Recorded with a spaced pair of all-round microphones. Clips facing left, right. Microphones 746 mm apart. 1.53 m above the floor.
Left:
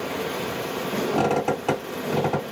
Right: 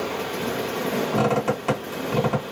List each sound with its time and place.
1.1 s a squeak: 50° right (ahead or behind), 2.5 m